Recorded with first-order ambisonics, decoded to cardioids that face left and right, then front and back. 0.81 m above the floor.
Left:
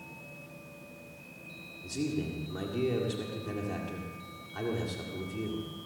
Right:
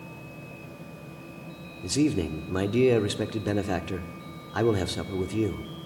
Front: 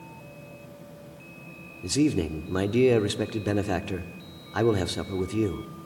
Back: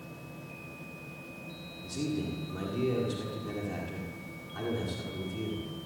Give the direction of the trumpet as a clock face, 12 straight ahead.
I don't hear a trumpet.